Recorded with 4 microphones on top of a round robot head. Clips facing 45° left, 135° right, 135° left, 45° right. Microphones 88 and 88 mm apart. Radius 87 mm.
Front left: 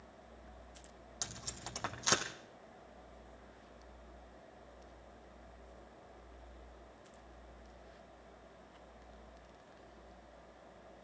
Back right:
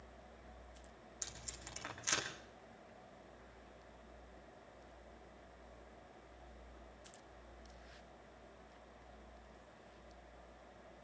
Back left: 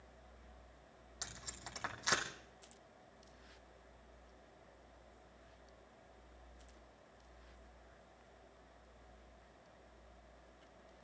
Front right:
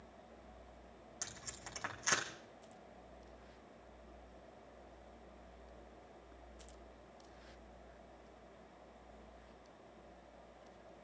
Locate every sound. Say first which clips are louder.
1.2 s tape being pulled: front left 9 dB, back left 1 dB; 55° left, 4.5 m